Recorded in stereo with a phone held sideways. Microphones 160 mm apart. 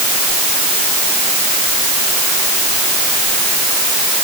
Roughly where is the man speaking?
No man speaking in this recording.